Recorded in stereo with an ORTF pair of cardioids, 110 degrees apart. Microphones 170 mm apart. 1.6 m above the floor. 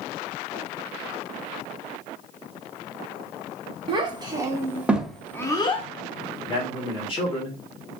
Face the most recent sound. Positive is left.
turn(degrees=30)